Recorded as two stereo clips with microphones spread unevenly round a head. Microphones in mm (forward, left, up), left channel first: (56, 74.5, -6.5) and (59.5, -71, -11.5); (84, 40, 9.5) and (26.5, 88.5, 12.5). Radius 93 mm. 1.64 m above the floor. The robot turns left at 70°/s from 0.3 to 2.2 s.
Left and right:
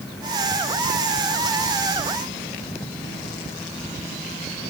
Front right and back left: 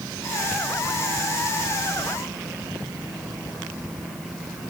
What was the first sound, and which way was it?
Only background noise.